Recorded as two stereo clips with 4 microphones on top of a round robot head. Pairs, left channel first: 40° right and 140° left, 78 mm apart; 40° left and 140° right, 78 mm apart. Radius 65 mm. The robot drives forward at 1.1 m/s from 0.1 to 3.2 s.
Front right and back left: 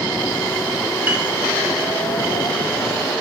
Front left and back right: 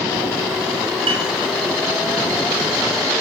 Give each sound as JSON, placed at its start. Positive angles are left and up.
{"t": 1.1, "sound": "a piano", "azimuth_deg": -155, "distance_m": 2.5}